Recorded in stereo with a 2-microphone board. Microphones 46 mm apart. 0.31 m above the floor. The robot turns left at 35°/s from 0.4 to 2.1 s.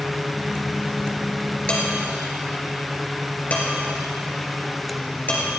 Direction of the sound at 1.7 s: 25° left (ahead or behind).